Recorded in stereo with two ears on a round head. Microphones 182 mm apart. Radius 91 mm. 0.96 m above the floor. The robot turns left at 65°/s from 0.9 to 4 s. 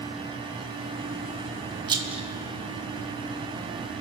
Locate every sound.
1.9 s a rattle: 25° right (ahead or behind), 1.2 m; by 2.3 s centre (ahead or behind), 1.2 m